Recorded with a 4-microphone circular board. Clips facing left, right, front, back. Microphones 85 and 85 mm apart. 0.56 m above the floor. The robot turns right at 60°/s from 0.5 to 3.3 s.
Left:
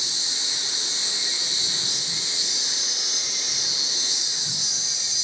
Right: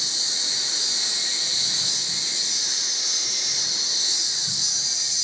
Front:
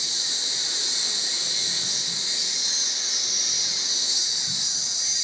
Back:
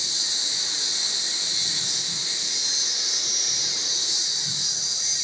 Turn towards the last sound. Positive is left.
turn(degrees=125)